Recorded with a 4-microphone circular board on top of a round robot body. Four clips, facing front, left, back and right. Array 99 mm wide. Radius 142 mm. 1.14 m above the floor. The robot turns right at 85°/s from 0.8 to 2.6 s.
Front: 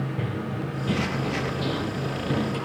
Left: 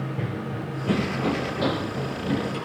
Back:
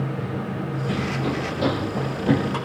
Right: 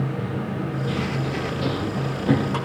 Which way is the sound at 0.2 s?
60° left.